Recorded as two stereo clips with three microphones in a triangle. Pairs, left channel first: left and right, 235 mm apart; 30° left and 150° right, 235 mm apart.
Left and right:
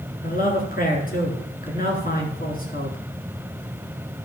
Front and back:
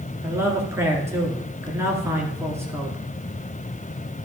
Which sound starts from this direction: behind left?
A man speaking, at 0.2 s.